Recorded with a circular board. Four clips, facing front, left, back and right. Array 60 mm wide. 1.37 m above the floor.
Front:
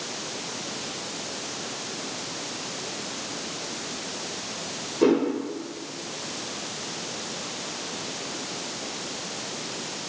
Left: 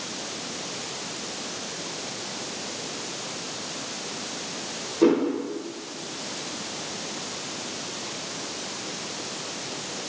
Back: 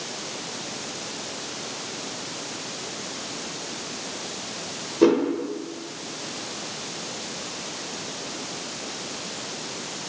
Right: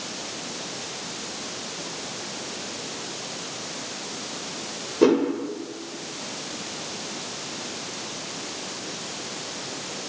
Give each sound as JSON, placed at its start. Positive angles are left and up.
{"t": 5.0, "sound": "a whoosh", "azimuth_deg": -120, "distance_m": 1.1}